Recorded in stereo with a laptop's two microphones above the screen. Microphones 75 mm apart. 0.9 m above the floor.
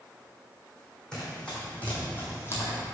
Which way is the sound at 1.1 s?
10° left (ahead or behind).